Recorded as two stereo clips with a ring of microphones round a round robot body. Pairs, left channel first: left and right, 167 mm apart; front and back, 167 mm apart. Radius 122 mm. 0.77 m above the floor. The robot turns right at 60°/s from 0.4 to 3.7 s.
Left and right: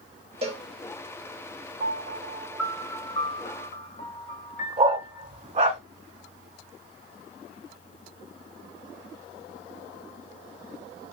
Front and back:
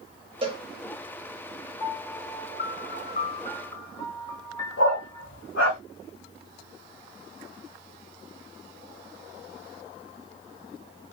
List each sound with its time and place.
0.4 s a cowbell: 135° right, 1.1 m; by 0.6 s 120° right, 1.1 m
1.8 s a piano: 55° right, 1.5 m; by 5.2 s 60° left, 1.5 m
4.8 s a dog barking: 40° right, 1.8 m